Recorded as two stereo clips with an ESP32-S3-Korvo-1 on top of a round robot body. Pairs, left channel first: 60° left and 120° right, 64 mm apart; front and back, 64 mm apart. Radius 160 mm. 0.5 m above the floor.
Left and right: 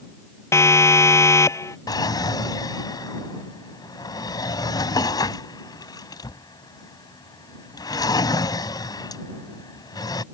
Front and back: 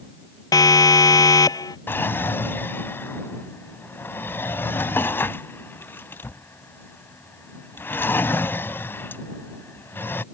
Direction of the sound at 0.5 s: 15° left.